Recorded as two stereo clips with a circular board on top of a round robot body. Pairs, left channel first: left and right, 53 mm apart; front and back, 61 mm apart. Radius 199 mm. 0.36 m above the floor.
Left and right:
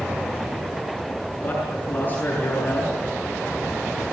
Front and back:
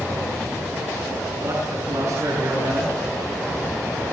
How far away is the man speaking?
About 7 m.